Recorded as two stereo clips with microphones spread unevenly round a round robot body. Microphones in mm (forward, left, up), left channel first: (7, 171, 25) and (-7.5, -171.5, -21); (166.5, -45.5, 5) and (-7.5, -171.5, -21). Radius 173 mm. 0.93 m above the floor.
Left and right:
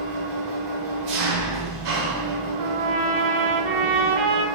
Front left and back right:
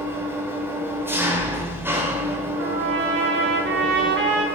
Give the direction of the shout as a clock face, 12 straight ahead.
No shout in this recording.